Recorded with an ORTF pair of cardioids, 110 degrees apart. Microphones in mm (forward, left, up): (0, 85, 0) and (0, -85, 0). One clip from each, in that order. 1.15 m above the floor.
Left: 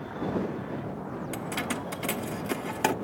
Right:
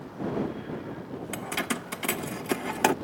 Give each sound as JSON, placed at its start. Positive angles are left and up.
{"t": 1.3, "sound": "keys jangling", "azimuth_deg": -15}